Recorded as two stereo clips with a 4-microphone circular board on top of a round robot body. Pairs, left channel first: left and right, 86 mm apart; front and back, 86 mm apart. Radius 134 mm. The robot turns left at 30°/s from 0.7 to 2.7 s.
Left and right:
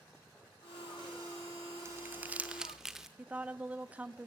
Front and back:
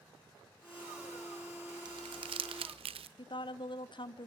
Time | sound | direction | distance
1.9 | crumpling | 150° right | 0.7 m
3.2 | a woman speaking | 15° right | 1.3 m